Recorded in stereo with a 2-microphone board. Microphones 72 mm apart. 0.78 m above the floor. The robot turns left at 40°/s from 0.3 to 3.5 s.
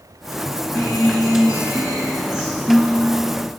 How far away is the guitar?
About 1.4 m.